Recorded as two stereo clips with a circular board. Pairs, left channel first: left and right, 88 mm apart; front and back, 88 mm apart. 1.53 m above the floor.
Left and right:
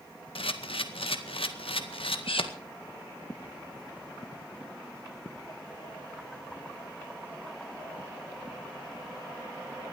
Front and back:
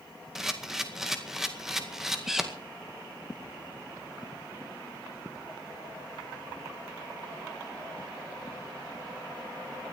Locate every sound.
0.3 s a camera shutter: 95° left, 1.9 m